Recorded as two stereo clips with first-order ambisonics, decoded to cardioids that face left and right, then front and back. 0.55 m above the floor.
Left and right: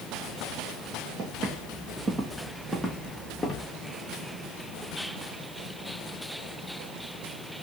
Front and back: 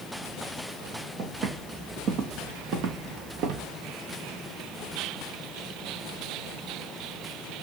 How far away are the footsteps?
About 1.3 m.